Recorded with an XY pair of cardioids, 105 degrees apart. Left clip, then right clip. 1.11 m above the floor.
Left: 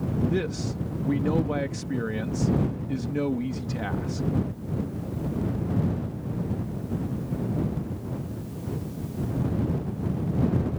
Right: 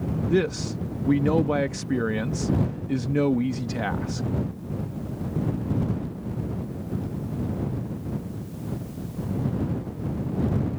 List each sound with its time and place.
0.3 s a man speaking: 35° right